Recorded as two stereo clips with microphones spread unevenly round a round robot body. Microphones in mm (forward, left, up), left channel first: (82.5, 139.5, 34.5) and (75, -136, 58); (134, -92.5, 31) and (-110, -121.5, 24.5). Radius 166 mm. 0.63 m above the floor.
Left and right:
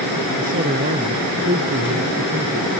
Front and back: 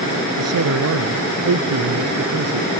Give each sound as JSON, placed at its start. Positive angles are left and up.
{"t": 0.4, "sound": "a man speaking", "azimuth_deg": -160}